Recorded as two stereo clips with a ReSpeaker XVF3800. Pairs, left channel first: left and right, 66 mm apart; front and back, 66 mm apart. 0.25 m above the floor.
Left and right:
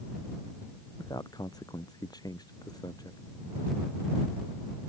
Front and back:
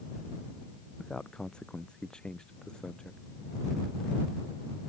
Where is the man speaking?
80° left.